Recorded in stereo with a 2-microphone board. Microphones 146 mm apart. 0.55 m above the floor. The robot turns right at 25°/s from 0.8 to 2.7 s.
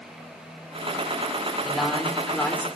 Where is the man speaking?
5° right (ahead or behind), 2 m; by 2.7 s 15° left (ahead or behind), 2 m.